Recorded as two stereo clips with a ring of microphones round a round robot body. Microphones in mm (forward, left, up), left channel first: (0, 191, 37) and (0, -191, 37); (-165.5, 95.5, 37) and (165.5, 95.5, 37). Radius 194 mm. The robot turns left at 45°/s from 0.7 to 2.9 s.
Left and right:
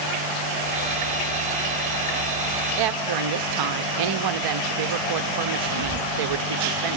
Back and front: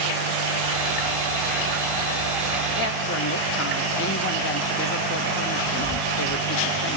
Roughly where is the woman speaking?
Behind right.